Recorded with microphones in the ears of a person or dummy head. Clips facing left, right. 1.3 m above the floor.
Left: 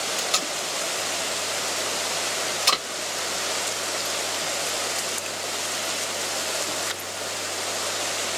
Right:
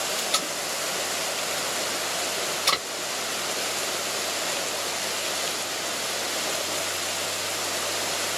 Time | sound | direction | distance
0.2 | tape being pulled | 5° left (ahead or behind) | 1.2 m